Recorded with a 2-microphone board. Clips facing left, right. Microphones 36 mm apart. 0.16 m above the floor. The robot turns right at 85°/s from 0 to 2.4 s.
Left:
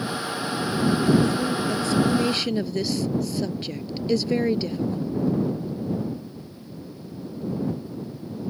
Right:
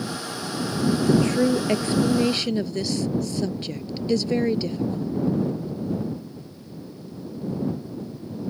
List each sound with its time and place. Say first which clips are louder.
1.1 s a woman speaking: right 4 dB; 60° right (ahead or behind); by 5.1 s 5° left (ahead or behind)